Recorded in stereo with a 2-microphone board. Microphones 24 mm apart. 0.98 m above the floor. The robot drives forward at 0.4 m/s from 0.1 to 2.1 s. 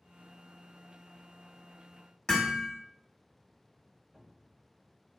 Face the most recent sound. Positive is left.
turn(degrees=-45)  # may be behind; listen again after turning